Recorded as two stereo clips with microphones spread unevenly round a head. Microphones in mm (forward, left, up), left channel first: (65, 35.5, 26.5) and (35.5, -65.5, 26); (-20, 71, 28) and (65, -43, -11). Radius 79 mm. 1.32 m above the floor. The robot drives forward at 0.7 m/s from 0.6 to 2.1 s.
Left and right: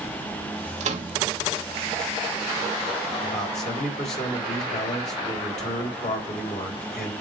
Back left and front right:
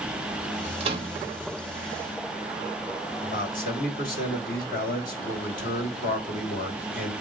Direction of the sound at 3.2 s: 105° left.